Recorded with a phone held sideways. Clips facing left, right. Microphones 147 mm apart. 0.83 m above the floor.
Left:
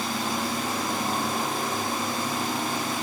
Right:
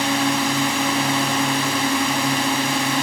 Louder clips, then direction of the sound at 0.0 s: Right 8 dB; 80° right.